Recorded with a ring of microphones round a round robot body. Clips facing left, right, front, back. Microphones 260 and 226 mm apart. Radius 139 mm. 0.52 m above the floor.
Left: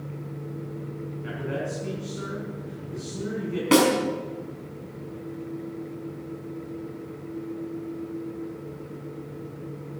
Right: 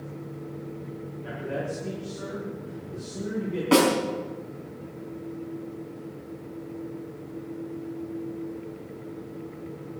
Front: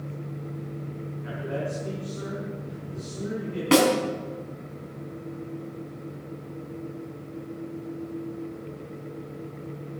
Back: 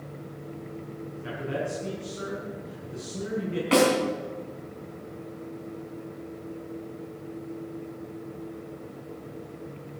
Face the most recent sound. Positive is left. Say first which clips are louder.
# left 1 dB, front 2 dB
turn(degrees=30)